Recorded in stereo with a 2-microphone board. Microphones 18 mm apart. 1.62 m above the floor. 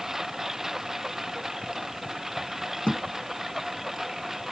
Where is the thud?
80° left.